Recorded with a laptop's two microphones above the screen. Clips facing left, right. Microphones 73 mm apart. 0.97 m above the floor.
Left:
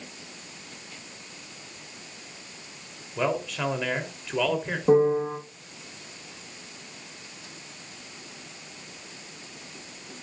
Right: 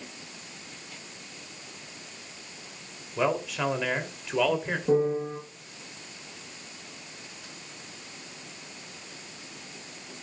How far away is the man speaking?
About 3 m.